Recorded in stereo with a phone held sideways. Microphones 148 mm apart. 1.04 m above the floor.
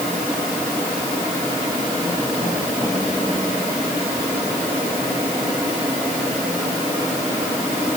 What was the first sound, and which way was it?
Only background noise.